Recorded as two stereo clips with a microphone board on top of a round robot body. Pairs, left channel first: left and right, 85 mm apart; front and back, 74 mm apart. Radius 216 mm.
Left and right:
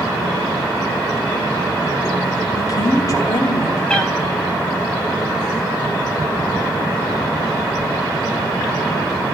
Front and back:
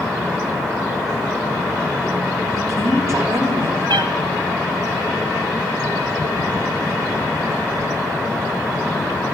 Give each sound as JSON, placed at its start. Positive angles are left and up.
{"t": 2.6, "sound": "a woman speaking", "azimuth_deg": 135, "distance_m": 3.0}
{"t": 3.9, "sound": "a cat meowing", "azimuth_deg": 170, "distance_m": 1.0}